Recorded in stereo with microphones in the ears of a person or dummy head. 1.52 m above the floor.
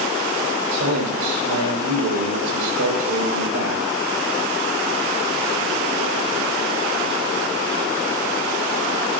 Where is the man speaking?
80° right, 6 m.